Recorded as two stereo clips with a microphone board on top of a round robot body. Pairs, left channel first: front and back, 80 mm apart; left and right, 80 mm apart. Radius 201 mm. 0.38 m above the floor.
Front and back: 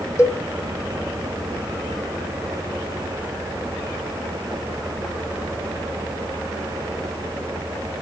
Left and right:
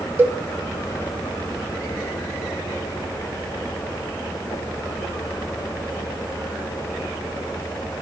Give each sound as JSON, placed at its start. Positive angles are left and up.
{"t": 0.2, "sound": "a cowbell", "azimuth_deg": -40, "distance_m": 0.7}